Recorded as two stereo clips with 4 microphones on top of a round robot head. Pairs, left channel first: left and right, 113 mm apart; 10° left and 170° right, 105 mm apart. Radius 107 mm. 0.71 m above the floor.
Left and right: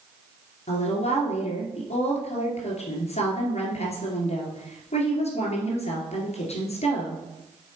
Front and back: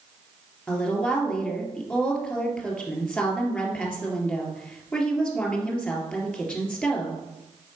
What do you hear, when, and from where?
0.7 s a woman speaking: 85° left, 2.5 m